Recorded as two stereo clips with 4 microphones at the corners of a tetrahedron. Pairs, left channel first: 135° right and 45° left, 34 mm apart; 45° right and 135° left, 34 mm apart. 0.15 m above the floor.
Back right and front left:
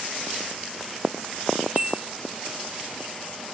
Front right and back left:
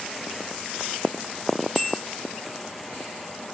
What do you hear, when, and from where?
1.8 s a bell: 35° left, 2.5 m